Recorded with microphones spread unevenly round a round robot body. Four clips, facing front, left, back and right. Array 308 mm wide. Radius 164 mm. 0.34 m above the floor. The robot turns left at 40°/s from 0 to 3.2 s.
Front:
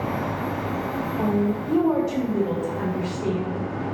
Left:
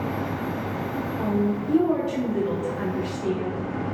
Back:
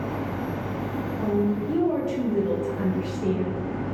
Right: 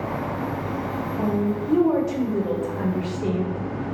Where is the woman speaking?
15° right, 0.9 m; by 3.6 s 95° right, 0.9 m.